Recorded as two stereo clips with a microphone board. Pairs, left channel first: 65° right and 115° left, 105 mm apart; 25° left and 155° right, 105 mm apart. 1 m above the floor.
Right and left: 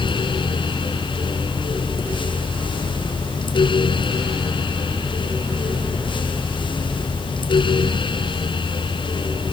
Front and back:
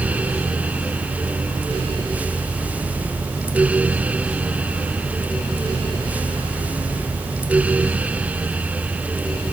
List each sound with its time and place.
Only background noise.